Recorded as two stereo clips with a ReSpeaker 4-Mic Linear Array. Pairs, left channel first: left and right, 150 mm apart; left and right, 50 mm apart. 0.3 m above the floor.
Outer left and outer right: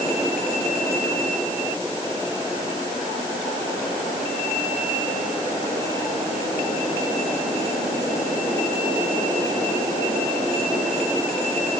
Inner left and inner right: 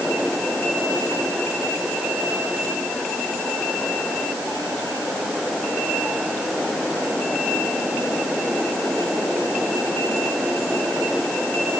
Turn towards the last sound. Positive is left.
No sound to turn to.